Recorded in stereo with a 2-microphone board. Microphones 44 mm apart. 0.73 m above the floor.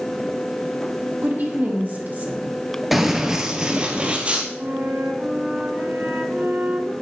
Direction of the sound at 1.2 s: 40° right (ahead or behind).